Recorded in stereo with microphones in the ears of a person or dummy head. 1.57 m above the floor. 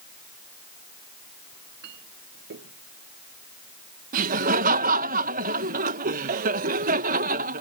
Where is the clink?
60° right (ahead or behind).